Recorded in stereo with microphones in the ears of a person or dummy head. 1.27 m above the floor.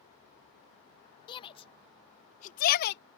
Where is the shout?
30° left (ahead or behind); by 3.0 s 55° left (ahead or behind).